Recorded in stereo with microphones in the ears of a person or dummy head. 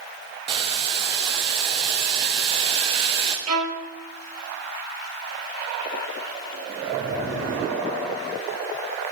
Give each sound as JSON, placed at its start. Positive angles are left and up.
{"t": 0.5, "sound": "boiling", "side_deg": -30, "distance_m": 0.5}
{"t": 3.5, "sound": "a violin", "side_deg": -45, "distance_m": 1.1}